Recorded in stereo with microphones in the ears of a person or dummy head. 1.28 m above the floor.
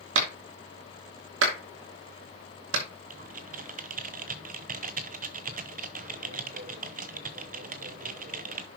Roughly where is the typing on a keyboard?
Right.